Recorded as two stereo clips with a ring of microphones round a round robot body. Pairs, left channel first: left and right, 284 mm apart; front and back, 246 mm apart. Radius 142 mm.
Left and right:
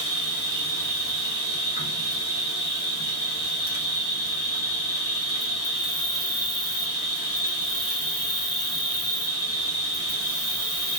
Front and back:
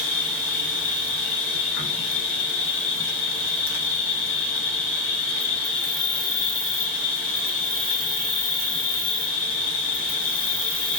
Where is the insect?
35° left, 1.3 m.